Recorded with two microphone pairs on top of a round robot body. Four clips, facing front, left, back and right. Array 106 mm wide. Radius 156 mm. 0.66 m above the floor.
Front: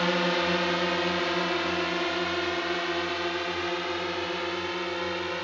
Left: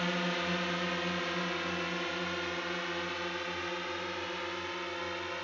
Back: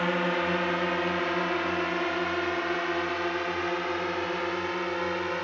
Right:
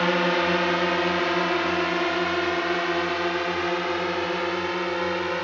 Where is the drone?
95° right; by 5.5 s 105° right.